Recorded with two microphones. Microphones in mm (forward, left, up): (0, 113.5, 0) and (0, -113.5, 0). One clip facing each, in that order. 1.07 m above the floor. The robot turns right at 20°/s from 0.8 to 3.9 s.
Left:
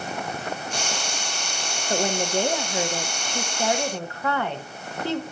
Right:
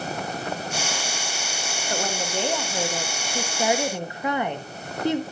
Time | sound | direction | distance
1.9 | a woman speaking | 155° left | 1.1 m